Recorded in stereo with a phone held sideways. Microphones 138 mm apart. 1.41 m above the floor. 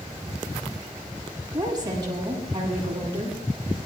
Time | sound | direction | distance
1.5 | a woman speaking | 25° right (ahead or behind) | 8 m